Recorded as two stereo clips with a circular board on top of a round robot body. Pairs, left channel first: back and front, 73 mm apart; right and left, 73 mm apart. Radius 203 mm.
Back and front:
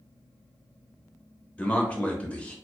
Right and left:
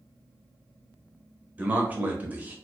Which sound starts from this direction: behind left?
A man speaking, at 1.6 s.